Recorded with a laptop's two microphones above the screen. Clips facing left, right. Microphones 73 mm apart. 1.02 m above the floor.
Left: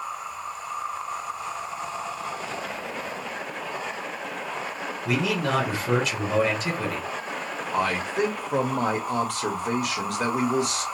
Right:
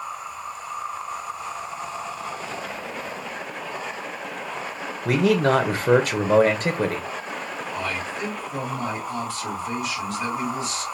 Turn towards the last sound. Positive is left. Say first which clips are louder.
# left 6 dB
turn(degrees=70)  # may be behind; listen again after turning